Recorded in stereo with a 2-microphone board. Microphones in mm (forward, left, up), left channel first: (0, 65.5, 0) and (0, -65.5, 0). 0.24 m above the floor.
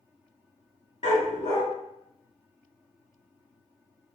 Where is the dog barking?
65° left (ahead or behind), 1.1 m.